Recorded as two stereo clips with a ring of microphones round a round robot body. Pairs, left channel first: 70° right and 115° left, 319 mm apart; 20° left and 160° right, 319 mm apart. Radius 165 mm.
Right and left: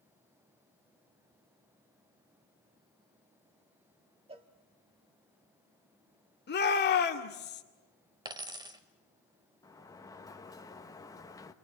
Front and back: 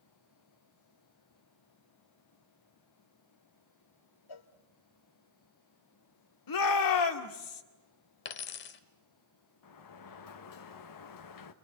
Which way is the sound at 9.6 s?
10° left.